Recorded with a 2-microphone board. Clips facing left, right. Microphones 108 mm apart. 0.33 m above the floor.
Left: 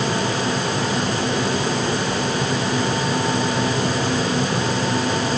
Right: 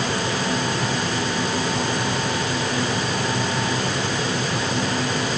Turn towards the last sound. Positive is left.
No sound to turn to.